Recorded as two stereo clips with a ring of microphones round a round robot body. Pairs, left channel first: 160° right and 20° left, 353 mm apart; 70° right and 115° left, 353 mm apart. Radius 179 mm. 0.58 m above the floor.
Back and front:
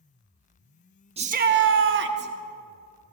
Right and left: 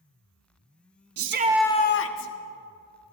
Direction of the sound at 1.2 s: 90° left.